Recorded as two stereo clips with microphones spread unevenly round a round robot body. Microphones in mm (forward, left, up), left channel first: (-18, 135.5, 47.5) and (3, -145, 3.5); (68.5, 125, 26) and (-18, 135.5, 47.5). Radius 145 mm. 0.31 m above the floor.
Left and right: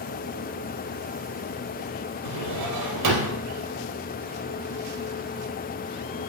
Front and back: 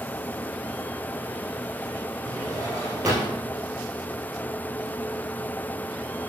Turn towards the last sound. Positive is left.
turn(degrees=-100)